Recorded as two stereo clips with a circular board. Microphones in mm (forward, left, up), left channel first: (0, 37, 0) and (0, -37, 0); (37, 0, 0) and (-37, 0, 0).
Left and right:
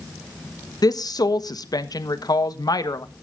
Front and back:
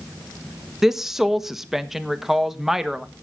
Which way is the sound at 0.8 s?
95° left.